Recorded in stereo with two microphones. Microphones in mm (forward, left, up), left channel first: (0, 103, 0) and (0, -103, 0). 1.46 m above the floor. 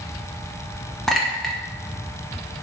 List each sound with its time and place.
1.1 s a clink: centre (ahead or behind), 0.6 m